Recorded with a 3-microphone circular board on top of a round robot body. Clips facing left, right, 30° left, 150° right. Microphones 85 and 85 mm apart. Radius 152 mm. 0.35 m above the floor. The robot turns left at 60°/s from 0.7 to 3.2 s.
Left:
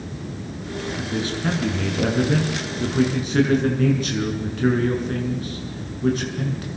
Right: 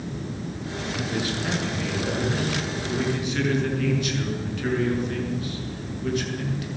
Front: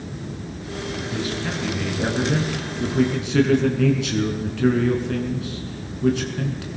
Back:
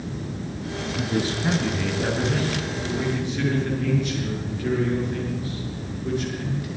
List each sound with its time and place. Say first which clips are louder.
1.0 s a man speaking: left 1 dB, back 3 dB; 170° left, 6.5 m; by 6.7 s 35° left, 6.5 m